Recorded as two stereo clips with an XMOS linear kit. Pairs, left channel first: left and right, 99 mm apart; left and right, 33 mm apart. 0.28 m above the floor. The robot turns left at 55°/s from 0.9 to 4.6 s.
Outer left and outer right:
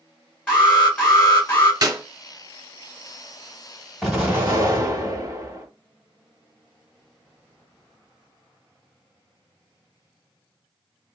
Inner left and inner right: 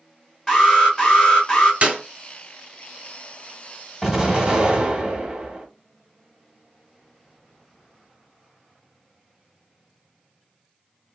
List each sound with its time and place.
0.5 s an alarm: 10° left (ahead or behind), 2 m; by 1.7 s 25° left (ahead or behind), 2 m
1.8 s a clap: 40° right (ahead or behind), 1.9 m; by 2.0 s 35° right (ahead or behind), 1.9 m
4.0 s an explosion: 5° right, 1.5 m; by 5.7 s 40° right, 1.5 m